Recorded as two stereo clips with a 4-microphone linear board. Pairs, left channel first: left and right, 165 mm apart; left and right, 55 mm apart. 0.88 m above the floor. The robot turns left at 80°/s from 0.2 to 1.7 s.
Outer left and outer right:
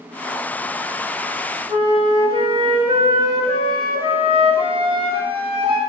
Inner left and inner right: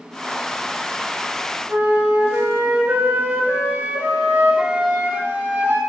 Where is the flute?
35° right (ahead or behind), 1.8 m.